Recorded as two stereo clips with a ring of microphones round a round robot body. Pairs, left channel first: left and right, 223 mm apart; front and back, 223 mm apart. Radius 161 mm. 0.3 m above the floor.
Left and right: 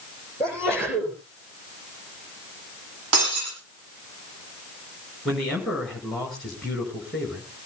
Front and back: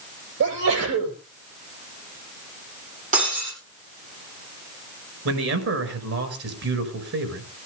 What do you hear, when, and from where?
0.4 s a sneeze: straight behind, 8.5 m
3.1 s breaking glass: 115° right, 9 m
5.2 s a man speaking: straight behind, 5.5 m